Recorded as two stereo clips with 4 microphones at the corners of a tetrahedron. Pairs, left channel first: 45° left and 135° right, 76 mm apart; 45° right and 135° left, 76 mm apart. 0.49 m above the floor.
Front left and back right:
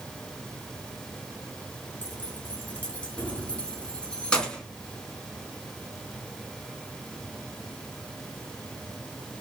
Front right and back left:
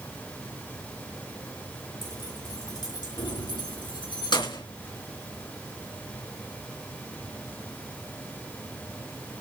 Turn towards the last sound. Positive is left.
turn(degrees=-35)